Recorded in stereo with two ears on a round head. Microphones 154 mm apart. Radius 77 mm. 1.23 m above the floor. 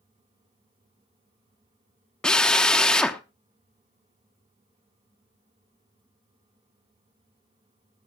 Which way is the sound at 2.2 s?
5° left (ahead or behind).